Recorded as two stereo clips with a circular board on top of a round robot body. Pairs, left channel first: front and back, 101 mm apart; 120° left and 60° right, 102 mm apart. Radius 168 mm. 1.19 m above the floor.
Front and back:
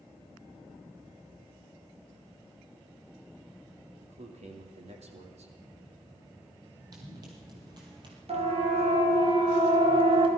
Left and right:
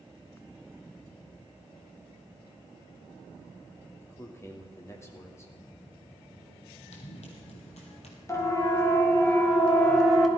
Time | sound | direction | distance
4.0 | a man speaking | 175° right | 2.5 m
6.9 | running footsteps | 125° left | 2.5 m
8.3 | a siren | straight behind | 3 m